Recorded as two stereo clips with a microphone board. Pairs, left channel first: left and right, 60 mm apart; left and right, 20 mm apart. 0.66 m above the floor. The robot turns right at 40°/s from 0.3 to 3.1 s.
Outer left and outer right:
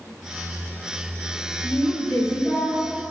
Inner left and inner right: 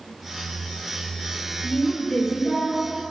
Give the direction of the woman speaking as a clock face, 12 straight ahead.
9 o'clock.